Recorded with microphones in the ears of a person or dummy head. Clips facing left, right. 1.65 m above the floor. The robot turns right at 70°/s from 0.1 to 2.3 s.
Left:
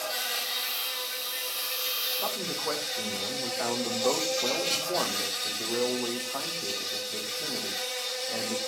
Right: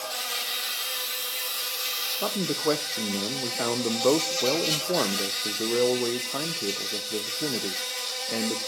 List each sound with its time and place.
0.0 s an insect: 155° left, 3.5 m; by 8.7 s 55° right, 3.5 m
2.2 s a man speaking: 45° right (ahead or behind), 0.5 m